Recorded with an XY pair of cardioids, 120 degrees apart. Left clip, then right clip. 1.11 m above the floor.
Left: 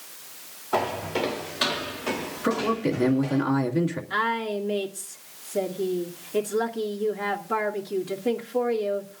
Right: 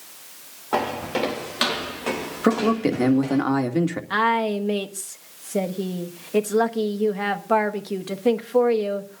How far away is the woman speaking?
About 1.4 m.